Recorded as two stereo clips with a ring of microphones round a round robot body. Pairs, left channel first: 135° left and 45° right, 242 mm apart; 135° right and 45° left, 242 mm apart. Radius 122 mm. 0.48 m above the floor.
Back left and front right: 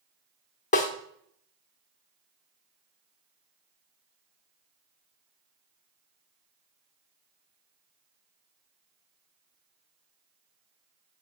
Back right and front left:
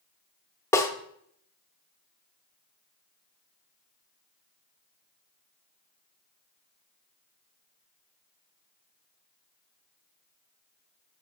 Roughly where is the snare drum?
Behind left.